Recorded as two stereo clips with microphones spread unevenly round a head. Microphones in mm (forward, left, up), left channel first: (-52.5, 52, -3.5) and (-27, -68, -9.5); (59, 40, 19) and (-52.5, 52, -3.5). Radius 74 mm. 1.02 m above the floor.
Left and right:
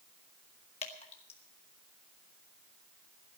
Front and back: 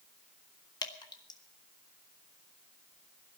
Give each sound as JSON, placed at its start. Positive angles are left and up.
{"t": 0.8, "sound": "dripping", "azimuth_deg": 50, "distance_m": 1.6}